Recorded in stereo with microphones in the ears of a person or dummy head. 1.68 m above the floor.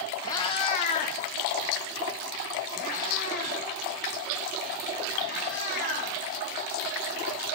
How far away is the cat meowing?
About 1.0 m.